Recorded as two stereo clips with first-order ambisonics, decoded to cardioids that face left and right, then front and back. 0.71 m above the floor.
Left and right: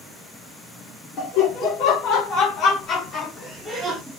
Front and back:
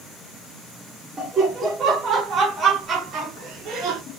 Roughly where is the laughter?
Left.